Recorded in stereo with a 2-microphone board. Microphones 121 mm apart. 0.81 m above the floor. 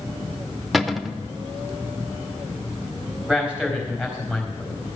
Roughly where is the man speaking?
Centre.